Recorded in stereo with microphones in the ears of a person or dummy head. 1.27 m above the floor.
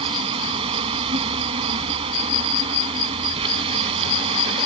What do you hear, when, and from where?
0.0 s an insect: 30° right (ahead or behind)